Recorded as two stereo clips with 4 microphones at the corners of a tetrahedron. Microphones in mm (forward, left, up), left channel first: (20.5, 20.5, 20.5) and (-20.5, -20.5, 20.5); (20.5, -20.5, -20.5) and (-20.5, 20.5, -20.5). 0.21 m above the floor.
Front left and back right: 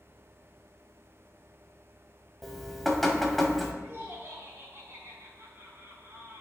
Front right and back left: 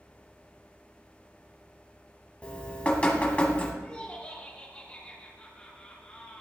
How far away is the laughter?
About 2.5 m.